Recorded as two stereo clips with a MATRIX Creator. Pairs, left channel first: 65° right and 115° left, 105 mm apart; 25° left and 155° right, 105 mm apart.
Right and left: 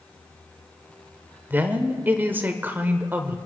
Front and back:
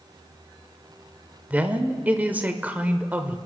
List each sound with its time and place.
1.5 s a woman speaking: 155° left, 0.8 m